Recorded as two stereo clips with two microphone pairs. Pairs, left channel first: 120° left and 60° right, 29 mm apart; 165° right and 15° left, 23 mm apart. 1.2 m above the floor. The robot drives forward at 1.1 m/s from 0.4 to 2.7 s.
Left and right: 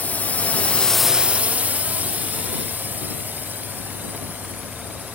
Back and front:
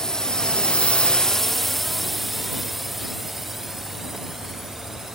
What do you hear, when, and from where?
0.0 s a drone: 140° left; by 5.2 s 55° right